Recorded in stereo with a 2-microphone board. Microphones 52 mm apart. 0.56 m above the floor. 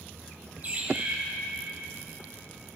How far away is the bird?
About 2.5 m.